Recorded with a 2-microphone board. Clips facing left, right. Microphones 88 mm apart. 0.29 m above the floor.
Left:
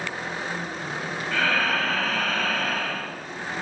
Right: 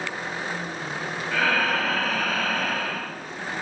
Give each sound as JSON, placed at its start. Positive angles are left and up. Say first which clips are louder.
{"t": 1.3, "sound": "breathing", "louder": "right 1 dB", "side_deg": -5, "distance_m": 1.4}